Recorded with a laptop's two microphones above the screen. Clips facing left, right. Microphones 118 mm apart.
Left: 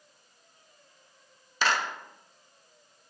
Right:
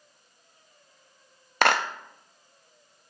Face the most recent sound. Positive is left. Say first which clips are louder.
# right 5 dB
turn(degrees=-65)  # may be behind; listen again after turning